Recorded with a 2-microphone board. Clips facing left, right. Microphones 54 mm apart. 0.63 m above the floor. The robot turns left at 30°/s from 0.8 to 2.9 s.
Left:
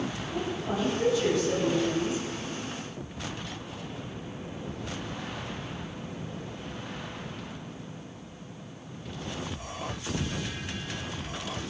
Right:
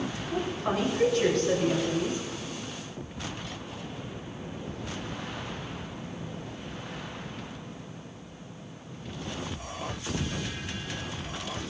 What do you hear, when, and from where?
0.3 s a woman speaking: 85° right, 7.5 m; by 2.2 s 130° right, 7.5 m